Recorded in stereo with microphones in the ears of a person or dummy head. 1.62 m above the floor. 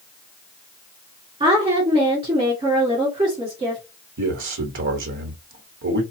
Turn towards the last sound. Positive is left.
turn(degrees=-65)  # may be behind; listen again after turning